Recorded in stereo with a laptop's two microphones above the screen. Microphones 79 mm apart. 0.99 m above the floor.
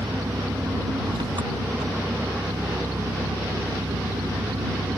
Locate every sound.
0.0 s an engine running: 75° right (ahead or behind)